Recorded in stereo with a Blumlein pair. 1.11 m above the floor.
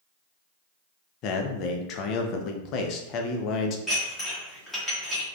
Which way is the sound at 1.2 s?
35° left.